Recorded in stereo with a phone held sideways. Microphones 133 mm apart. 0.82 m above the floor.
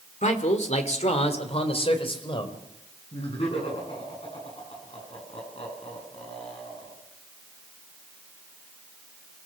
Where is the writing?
I don't hear writing.